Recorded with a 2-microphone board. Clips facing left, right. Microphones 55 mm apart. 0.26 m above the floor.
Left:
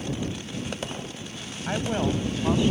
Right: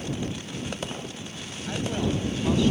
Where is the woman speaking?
40° left (ahead or behind); by 2.7 s 20° left (ahead or behind).